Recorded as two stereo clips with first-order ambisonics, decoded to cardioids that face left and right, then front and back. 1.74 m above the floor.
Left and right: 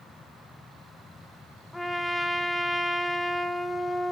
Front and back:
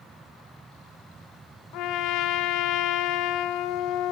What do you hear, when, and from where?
1.7 s a trumpet: 10° left, 1.1 m